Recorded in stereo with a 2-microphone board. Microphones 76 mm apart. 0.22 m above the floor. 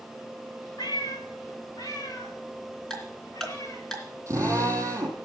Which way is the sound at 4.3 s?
40° right (ahead or behind).